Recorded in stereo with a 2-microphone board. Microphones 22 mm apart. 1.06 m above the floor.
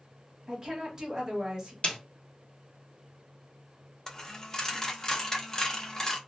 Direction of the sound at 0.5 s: 35° right (ahead or behind).